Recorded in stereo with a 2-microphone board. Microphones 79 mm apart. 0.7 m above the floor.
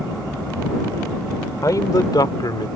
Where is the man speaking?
50° left (ahead or behind); by 2.7 s 65° left (ahead or behind).